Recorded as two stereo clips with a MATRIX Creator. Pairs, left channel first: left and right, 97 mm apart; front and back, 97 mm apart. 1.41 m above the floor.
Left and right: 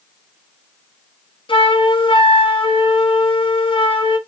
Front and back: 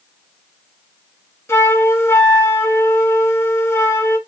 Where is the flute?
65° left, 0.8 m.